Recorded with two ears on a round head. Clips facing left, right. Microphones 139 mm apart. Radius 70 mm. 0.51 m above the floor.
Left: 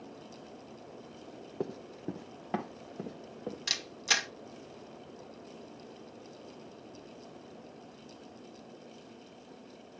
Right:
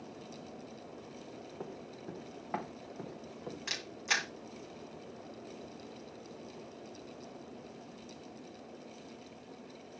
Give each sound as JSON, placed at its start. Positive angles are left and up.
{"t": 1.6, "sound": "running footsteps", "side_deg": 45, "distance_m": 1.1}
{"t": 3.7, "sound": "a camera shutter", "side_deg": 40, "distance_m": 2.5}